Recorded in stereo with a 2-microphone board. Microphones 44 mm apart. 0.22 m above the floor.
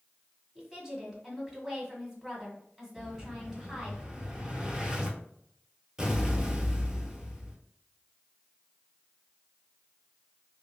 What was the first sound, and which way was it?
A woman speaking, 10° right (ahead or behind).